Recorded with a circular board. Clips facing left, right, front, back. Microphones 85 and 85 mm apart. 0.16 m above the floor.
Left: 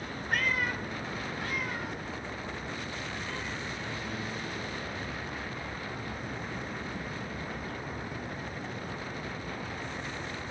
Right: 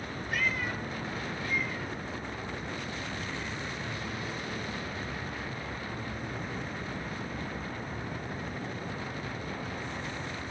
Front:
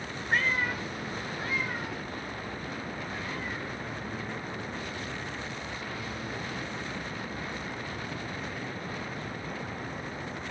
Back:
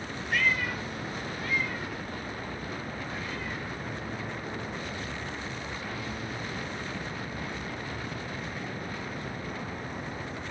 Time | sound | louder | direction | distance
0.3 | a cat meowing | left 2 dB, even | 55° left | 0.9 m